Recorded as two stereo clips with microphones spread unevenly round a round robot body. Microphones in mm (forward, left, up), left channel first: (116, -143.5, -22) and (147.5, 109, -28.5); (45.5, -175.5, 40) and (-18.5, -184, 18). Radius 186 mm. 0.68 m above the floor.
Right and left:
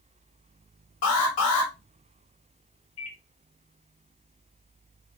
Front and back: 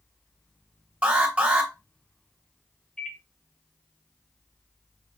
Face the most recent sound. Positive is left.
turn(degrees=-80)